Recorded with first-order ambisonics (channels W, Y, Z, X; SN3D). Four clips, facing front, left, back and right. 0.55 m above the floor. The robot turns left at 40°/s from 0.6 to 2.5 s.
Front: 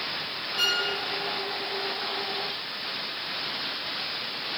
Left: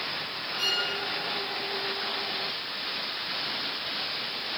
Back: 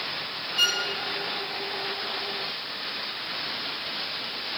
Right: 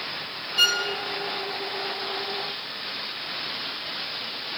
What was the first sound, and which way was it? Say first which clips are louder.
A violin: right 7 dB, back 2 dB; 100° right.